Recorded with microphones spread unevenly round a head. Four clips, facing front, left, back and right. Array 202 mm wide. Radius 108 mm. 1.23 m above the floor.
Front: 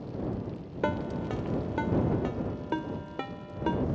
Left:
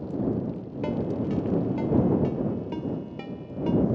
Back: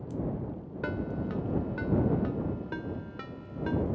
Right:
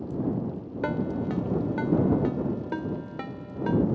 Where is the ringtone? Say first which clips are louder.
Left 1 dB, front 3 dB; 55° right.